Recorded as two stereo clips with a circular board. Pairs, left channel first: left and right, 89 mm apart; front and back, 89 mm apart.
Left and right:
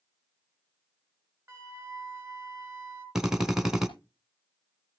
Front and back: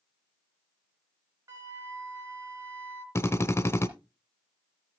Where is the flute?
145° right, 1.4 m.